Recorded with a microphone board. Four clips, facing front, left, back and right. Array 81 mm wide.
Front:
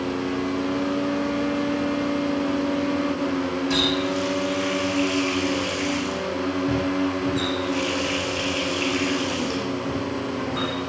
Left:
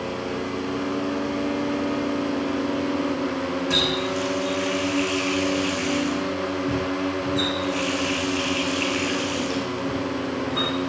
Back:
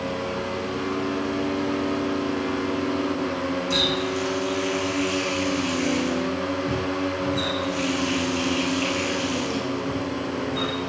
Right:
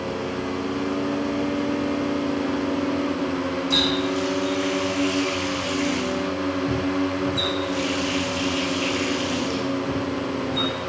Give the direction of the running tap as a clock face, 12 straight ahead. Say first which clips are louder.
Right 2 dB, front 2 dB; 10 o'clock.